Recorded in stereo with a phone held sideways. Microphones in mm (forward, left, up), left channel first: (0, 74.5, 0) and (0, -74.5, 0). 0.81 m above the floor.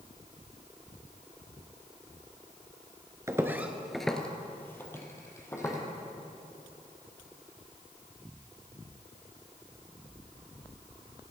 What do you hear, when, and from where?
3.3 s footsteps: 20° right (ahead or behind), 0.8 m; by 5.8 s 20° left (ahead or behind), 2 m